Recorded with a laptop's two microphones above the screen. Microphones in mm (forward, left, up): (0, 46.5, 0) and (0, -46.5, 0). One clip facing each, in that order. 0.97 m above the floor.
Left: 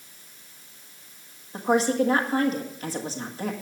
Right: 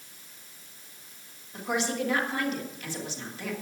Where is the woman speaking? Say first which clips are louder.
Left 8 dB; 40° left (ahead or behind), 1.3 m.